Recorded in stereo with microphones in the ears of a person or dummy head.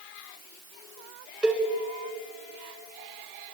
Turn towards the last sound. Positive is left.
turn(degrees=0)  # may be behind; listen again after turning